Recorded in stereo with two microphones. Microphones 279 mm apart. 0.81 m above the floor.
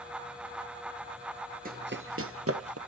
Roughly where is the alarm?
I don't hear an alarm.